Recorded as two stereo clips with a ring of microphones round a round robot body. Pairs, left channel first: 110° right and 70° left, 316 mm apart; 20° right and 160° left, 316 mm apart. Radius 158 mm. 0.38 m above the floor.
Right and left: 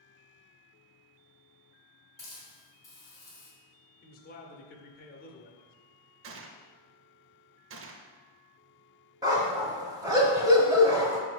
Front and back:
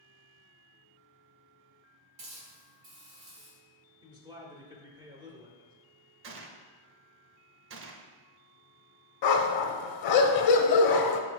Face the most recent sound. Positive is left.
turn(degrees=-10)